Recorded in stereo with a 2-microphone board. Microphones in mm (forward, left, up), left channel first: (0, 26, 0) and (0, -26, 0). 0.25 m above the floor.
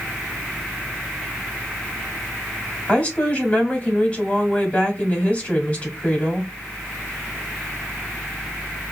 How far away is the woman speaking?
About 1.3 m.